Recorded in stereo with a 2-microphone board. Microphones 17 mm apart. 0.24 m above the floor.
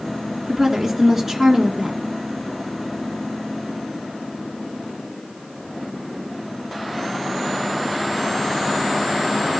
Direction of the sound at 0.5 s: 5° right (ahead or behind).